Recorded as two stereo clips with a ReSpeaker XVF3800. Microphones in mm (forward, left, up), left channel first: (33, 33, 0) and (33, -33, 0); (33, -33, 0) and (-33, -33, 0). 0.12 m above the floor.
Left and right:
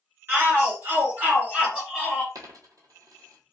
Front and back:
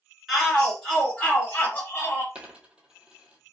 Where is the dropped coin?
105° right, 0.9 m.